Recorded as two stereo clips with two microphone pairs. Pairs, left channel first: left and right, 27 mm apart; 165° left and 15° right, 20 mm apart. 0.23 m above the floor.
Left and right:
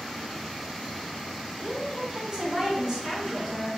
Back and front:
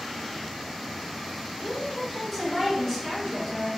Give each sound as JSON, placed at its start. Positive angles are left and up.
{"t": 1.6, "sound": "a woman speaking", "azimuth_deg": -130, "distance_m": 1.7}